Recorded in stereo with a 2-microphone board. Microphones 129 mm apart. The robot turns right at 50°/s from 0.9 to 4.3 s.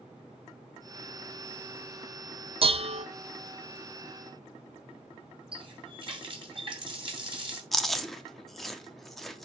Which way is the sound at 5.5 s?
45° right (ahead or behind).